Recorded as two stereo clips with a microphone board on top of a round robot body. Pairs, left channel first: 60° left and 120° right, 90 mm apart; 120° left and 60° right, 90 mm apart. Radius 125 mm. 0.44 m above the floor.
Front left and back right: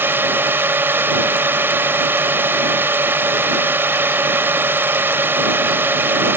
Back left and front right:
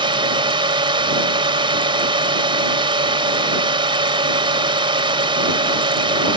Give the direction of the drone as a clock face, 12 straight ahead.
2 o'clock.